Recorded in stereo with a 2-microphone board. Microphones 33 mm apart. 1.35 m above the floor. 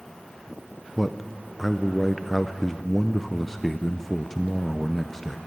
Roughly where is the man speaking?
Centre.